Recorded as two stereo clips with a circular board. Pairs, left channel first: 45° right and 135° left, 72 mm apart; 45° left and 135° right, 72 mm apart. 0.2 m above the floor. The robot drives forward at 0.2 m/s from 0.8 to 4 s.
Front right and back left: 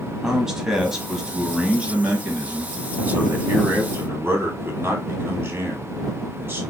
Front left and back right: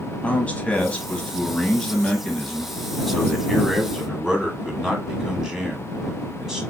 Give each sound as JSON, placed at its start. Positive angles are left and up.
{"t": 0.2, "sound": "a man speaking", "azimuth_deg": 70, "distance_m": 1.0}